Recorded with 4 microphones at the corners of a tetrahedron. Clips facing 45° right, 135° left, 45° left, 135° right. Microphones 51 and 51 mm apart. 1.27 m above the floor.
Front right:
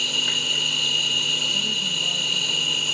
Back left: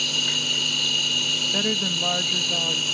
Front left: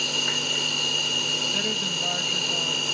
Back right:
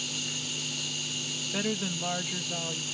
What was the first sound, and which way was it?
An insect, 30° left.